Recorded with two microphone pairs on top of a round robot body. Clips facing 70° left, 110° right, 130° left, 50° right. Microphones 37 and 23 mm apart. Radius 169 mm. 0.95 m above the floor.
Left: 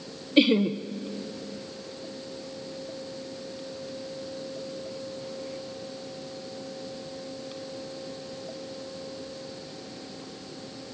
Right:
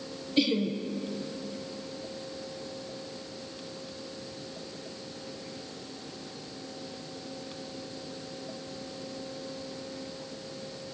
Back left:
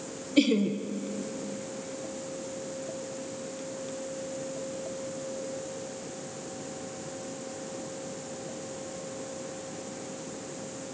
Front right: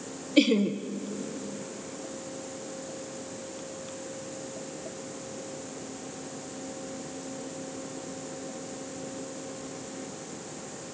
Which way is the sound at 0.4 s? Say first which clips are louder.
Left 6 dB, front right 1 dB; 25° left.